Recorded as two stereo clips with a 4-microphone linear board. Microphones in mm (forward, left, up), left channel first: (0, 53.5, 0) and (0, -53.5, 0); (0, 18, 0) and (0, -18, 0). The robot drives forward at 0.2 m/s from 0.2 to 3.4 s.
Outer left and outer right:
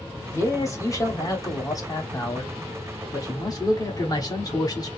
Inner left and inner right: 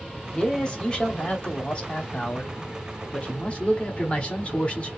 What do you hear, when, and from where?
0.3 s a man speaking: 30° left (ahead or behind), 1.0 m; by 4.9 s 35° left (ahead or behind), 0.8 m